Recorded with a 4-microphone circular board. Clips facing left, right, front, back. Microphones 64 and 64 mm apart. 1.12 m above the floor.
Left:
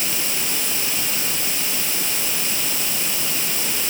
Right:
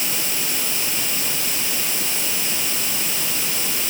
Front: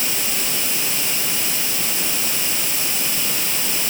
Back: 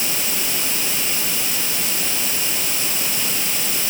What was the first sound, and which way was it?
Only background noise.